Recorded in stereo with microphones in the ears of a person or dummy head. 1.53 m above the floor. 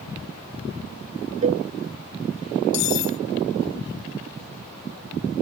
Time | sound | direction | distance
1.4 | a cowbell | 40° right (ahead or behind) | ?
2.7 | cutlery clinking | 65° left (ahead or behind) | ?